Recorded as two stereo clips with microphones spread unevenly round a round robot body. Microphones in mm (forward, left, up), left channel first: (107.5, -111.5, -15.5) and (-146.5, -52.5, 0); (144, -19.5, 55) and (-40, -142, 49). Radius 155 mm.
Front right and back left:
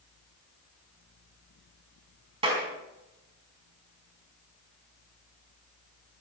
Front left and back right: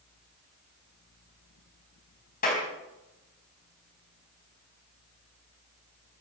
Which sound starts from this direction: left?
A clap, at 2.4 s.